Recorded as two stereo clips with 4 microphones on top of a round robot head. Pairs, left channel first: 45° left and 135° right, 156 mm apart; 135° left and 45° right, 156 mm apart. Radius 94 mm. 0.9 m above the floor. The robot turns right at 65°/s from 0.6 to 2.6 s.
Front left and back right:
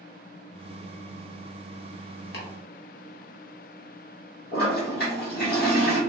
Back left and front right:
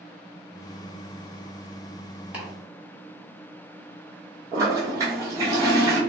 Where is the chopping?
35° left, 1.1 m; by 2.5 s 40° left, 1.1 m.